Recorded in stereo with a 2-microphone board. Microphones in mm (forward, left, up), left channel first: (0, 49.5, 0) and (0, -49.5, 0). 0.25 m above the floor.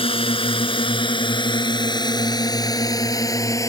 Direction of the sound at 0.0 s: 65° left (ahead or behind).